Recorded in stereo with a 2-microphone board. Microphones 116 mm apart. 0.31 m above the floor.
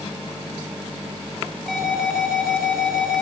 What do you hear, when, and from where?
1.7 s an alarm: 5° left (ahead or behind), 6 m